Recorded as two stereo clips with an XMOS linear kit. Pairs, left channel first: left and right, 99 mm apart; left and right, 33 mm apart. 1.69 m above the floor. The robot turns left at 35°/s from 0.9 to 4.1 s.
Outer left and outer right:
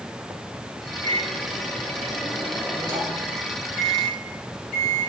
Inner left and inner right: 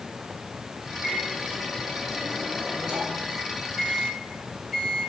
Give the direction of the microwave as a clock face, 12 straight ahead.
3 o'clock.